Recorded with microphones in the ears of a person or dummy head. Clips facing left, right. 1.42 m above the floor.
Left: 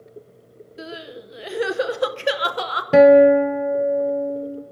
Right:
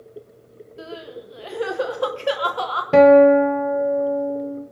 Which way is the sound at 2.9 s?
5° left (ahead or behind).